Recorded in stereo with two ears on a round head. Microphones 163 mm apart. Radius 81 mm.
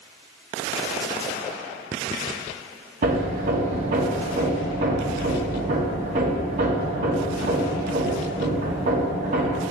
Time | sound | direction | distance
3.0 | hammering | 45° right (ahead or behind) | 0.8 m